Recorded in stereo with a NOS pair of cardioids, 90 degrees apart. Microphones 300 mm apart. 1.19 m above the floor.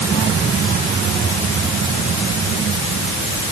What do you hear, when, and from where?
Only background noise.